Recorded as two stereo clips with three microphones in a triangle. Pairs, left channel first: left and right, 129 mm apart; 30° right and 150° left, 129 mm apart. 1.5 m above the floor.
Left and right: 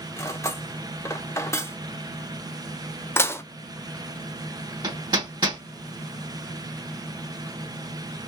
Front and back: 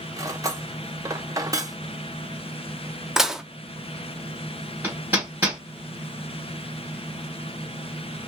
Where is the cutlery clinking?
130° left, 0.6 m.